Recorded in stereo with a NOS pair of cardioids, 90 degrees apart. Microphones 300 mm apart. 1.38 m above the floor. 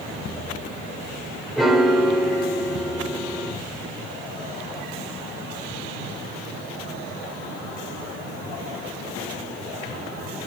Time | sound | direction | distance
1.6 | a piano | straight ahead | 5.5 m